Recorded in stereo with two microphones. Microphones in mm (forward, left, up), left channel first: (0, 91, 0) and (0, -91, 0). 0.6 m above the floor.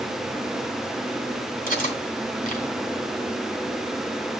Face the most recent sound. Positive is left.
turn(degrees=50)  # may be behind; listen again after turning